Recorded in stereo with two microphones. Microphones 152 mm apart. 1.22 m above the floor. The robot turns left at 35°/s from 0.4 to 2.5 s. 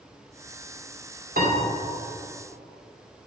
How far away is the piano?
About 2.5 m.